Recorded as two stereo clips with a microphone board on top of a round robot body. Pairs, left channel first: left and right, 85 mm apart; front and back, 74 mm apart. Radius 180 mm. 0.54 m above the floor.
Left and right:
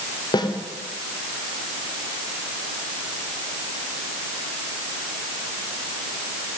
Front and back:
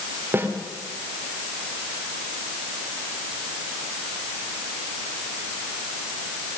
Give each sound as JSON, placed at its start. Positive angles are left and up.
{"t": 0.3, "sound": "a snare drum", "azimuth_deg": 120, "distance_m": 3.0}